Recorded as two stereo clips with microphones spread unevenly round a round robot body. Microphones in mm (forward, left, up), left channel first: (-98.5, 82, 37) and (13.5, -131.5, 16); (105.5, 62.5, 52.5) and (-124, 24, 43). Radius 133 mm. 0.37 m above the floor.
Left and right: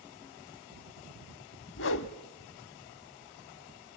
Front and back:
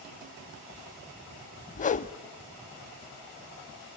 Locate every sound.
1.8 s a whoosh: 70° left, 0.6 m